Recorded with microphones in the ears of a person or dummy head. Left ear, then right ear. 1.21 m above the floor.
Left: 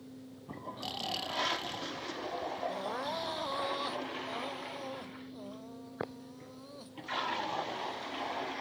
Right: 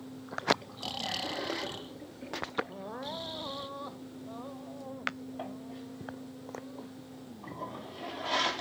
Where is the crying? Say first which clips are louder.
Left 4 dB; 80° left.